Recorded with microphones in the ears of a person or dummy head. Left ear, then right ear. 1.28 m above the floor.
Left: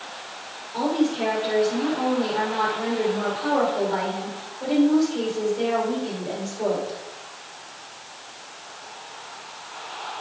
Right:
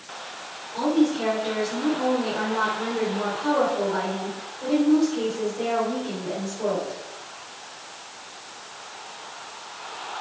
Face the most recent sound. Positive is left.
turn(degrees=85)